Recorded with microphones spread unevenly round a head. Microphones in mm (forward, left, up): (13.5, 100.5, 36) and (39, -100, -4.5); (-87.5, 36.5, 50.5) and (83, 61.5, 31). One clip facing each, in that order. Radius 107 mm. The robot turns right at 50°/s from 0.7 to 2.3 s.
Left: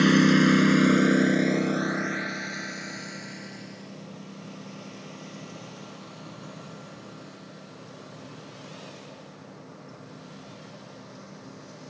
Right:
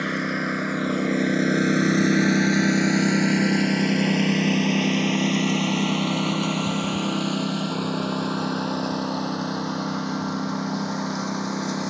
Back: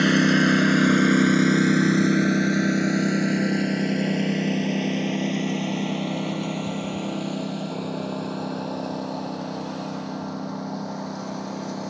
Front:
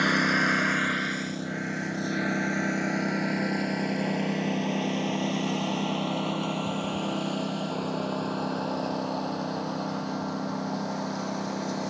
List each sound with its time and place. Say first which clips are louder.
0.0 s a lawn mower: left 8 dB, back 8 dB; 130° left; by 11.9 s 80° right